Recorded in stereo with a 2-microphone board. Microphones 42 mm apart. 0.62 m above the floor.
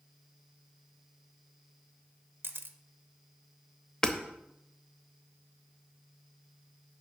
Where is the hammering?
20° left (ahead or behind), 0.8 m.